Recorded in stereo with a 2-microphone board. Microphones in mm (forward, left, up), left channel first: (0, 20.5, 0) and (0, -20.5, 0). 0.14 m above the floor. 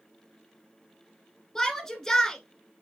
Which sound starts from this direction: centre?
A shout, at 1.6 s.